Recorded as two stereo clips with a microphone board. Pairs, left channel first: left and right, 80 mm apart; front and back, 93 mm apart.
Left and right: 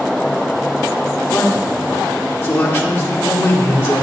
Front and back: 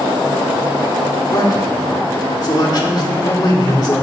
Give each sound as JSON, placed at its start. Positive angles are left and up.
{"t": 1.3, "sound": "a man speaking", "azimuth_deg": 35, "distance_m": 1.9}